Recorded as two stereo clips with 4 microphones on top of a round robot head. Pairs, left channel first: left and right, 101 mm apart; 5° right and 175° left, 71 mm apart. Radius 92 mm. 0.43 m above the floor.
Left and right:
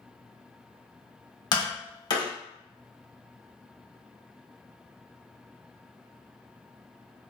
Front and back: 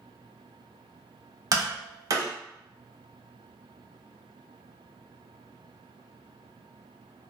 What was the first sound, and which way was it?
Tapping, 130° left.